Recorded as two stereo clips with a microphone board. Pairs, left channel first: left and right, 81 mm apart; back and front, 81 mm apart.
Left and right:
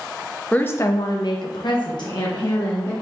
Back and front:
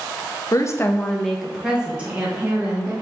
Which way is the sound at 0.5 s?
160° left.